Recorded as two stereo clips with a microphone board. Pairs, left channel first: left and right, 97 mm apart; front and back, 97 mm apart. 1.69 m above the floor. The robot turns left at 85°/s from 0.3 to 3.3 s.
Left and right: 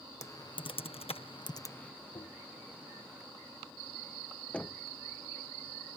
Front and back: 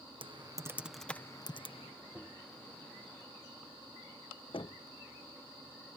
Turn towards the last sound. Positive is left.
turn(degrees=10)